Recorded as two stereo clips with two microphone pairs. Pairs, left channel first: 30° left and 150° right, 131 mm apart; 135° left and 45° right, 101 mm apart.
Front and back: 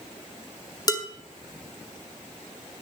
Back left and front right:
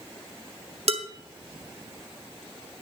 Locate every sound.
0.9 s dishes clattering: 30° right, 1.4 m